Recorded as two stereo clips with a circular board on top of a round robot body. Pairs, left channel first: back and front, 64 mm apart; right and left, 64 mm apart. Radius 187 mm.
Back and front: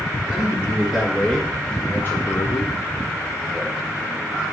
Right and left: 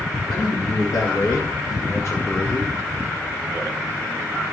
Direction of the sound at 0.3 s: 80° right.